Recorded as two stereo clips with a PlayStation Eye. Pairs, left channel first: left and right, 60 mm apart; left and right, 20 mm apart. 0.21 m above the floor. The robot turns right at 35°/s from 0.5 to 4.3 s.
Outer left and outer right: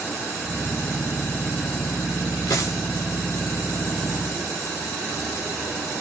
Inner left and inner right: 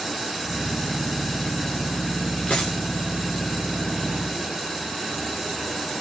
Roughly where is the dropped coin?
Left.